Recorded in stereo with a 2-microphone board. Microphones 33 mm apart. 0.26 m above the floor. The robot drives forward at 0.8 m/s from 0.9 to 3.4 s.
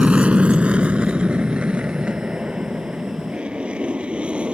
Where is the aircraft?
35° right (ahead or behind); by 4.5 s 30° right (ahead or behind).